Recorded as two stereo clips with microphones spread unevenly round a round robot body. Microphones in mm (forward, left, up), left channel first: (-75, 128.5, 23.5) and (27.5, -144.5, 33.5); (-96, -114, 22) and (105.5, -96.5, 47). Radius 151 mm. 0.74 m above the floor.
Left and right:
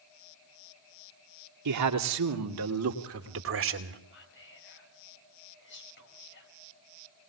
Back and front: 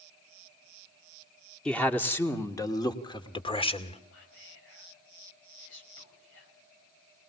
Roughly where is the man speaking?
Right.